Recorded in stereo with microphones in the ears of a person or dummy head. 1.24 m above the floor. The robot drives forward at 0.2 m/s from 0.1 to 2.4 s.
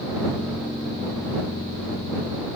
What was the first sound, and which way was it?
Only background noise.